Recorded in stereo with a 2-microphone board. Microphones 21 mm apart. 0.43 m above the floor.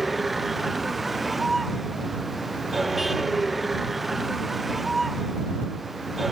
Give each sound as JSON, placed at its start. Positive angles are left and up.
{"t": 0.0, "sound": "a vehicle", "side_deg": -10}